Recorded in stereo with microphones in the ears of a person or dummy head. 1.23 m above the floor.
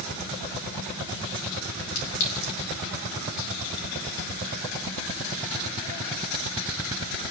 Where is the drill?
I don't hear a drill.